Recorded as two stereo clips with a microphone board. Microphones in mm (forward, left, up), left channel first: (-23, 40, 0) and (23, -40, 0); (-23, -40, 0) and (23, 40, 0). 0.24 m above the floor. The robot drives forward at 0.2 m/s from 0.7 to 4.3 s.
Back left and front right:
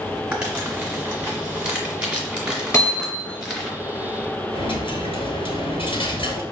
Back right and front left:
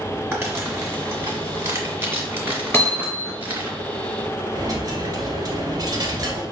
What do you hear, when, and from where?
0.3 s crumpling: 15° left, 1.7 m; by 3.7 s 25° left, 1.4 m
2.7 s hammering: 170° left, 1.9 m
4.5 s a dropped coin: 105° left, 1.1 m